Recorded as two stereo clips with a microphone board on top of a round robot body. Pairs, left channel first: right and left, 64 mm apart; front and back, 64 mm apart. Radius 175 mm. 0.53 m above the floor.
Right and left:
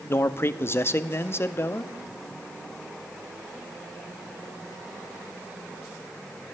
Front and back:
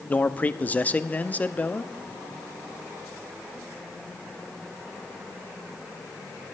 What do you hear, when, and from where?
0.1 s a man speaking: 55° right, 1.0 m